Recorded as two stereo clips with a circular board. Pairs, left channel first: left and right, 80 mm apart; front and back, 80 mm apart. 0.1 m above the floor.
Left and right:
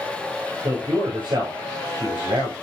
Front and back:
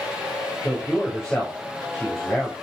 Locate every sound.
0.6 s a man speaking: 85° right, 7.5 m